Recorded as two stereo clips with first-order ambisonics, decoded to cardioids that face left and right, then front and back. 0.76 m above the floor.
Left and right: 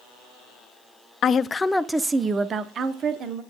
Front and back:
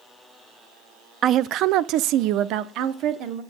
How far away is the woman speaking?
About 0.5 m.